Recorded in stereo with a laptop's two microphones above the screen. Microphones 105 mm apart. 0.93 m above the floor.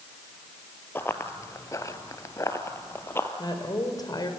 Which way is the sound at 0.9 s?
20° left (ahead or behind).